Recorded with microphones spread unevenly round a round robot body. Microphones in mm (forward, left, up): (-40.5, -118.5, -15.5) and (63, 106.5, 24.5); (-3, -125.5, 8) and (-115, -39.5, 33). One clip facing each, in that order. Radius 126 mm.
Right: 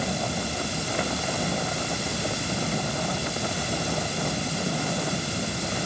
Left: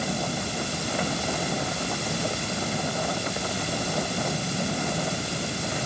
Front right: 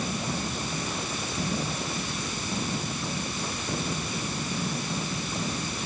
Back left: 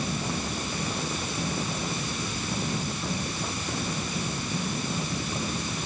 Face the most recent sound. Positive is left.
No sound to turn to.